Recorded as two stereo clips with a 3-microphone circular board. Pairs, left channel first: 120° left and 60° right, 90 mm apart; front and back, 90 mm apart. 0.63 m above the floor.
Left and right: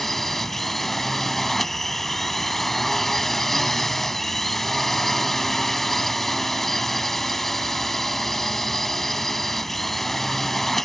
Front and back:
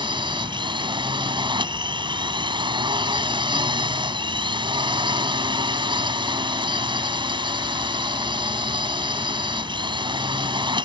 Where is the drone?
150° right.